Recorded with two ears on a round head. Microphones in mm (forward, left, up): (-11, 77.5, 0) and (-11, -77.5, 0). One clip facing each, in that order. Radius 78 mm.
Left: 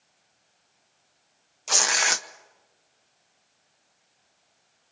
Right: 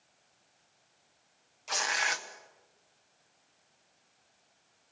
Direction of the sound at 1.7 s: 55° left (ahead or behind).